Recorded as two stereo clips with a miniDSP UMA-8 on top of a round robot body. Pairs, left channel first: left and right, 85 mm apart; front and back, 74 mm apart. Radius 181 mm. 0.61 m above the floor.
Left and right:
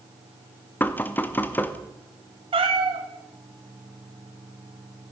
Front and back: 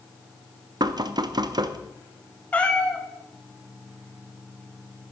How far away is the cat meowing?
About 0.9 m.